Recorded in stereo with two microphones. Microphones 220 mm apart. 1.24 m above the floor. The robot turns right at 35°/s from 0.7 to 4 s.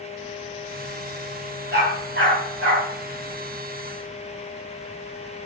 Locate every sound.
1.7 s a dog barking: 50° right (ahead or behind), 4 m; by 2.9 s 80° right, 4 m